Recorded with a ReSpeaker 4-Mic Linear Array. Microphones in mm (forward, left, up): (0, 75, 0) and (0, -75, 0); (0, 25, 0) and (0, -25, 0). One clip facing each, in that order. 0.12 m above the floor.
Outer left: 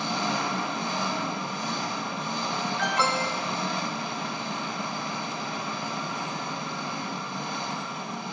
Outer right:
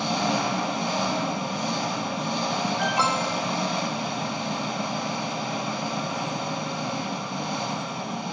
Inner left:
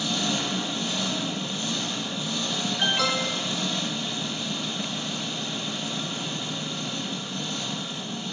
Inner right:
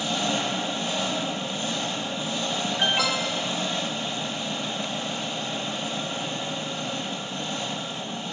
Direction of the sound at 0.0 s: 20° right (ahead or behind).